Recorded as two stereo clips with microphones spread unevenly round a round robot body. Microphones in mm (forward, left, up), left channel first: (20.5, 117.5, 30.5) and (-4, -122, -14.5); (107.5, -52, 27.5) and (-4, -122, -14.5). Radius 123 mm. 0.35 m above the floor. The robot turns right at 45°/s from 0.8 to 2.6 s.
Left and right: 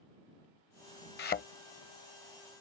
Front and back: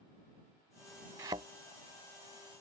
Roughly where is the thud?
Behind left.